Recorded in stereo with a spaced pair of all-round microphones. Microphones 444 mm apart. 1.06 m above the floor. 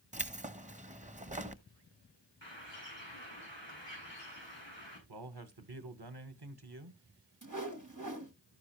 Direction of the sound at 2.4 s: 75° left (ahead or behind).